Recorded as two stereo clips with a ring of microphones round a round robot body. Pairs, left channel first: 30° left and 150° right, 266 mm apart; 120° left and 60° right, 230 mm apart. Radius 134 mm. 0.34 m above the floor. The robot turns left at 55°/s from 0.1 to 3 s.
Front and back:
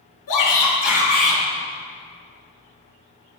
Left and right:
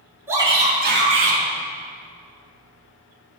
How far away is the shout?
About 4.5 m.